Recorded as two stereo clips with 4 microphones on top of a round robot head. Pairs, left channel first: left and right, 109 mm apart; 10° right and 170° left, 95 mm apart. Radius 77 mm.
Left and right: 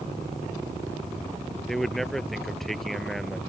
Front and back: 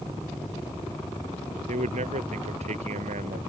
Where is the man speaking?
Straight behind.